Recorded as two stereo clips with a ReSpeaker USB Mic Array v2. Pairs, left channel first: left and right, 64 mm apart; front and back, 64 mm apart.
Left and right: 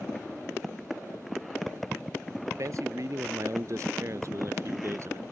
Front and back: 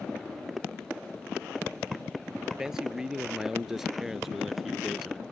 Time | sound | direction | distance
2.6 | a man speaking | 100° right | ?